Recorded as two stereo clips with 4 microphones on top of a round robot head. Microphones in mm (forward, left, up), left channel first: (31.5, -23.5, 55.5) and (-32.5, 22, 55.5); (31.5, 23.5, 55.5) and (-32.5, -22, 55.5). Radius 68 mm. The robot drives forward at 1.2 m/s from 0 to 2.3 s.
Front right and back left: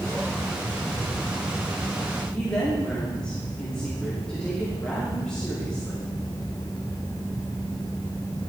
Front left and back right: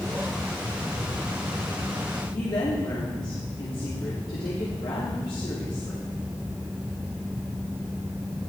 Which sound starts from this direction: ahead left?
A woman speaking, at 2.3 s.